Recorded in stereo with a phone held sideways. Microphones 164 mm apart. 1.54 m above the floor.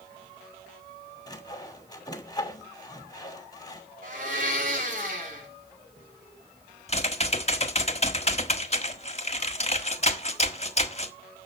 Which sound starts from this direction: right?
A blender, at 4.0 s.